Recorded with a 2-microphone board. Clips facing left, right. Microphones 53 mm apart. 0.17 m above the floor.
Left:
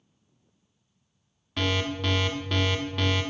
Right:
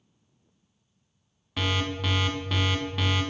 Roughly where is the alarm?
Centre.